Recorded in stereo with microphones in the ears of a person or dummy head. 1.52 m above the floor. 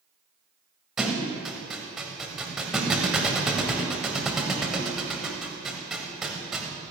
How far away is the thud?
About 1.9 m.